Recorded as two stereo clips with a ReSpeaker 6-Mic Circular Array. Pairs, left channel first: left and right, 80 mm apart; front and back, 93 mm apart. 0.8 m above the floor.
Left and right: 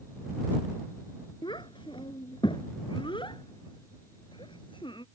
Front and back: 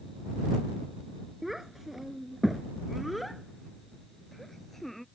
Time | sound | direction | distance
1.4 | a child speaking | 90° left | ?